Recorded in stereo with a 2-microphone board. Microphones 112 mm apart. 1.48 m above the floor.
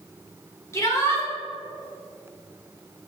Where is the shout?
25° left (ahead or behind), 4 m.